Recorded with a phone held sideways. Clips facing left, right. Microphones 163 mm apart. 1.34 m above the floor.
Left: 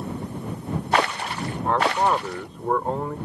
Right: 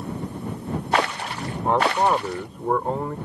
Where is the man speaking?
20° right (ahead or behind); by 3.2 s centre (ahead or behind).